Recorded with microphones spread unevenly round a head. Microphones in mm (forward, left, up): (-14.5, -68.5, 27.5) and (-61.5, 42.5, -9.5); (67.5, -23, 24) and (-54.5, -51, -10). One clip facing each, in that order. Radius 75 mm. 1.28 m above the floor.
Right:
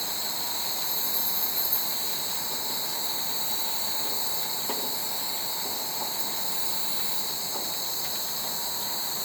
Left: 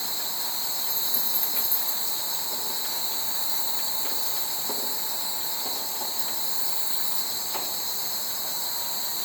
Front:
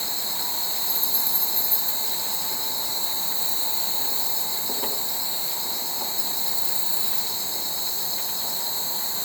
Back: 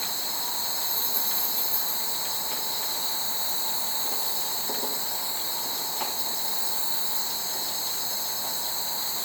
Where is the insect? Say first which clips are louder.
Right 1 dB, front 1 dB; 15° left, 0.8 m.